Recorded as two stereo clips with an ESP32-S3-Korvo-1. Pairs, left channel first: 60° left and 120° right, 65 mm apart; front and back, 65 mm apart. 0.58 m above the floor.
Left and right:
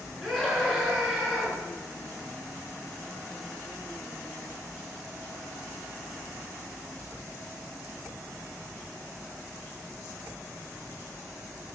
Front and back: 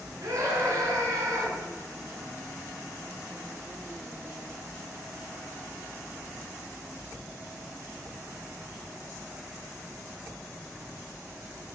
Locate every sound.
0.2 s a scream: 145° left, 8 m